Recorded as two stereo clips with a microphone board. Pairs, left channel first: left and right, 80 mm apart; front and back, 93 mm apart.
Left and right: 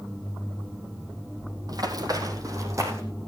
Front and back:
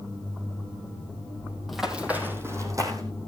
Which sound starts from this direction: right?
Running footsteps, at 1.7 s.